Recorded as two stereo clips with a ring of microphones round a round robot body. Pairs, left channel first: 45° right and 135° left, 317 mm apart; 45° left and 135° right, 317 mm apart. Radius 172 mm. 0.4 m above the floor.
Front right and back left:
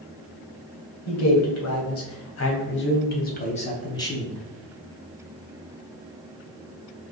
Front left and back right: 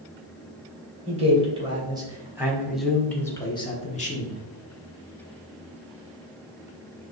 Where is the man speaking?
70° right, 1.9 m; by 4.4 s 40° left, 1.2 m.